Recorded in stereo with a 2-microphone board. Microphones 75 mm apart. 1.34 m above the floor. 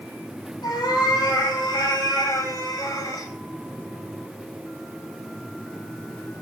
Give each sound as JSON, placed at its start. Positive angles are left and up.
{"t": 0.6, "sound": "a cat meowing", "side_deg": 75, "distance_m": 5.0}